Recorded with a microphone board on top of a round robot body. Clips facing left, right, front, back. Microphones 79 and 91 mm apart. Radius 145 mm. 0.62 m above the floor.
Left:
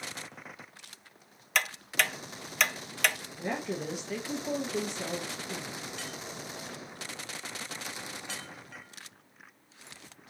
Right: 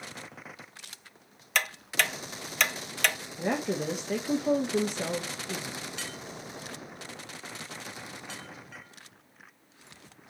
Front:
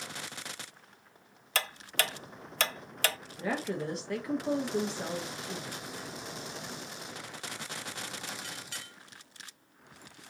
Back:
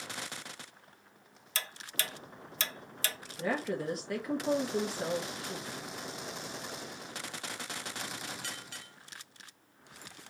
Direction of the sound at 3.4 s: 95° right.